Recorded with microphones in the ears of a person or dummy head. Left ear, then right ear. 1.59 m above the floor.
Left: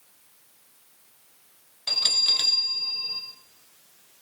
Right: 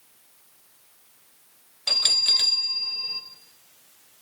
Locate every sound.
1.9 s a bell: 15° right (ahead or behind), 0.7 m